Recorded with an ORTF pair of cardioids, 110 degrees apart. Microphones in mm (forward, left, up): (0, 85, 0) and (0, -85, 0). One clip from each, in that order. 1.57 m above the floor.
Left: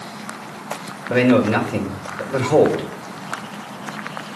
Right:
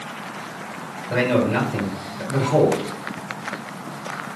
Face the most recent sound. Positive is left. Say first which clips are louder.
# left 4 dB
turn(degrees=55)